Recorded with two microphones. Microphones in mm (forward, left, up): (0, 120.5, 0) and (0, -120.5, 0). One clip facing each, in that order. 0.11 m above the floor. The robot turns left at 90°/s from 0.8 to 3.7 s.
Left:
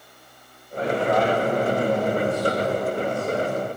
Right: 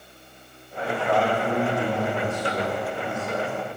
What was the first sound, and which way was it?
A man speaking, 40° left.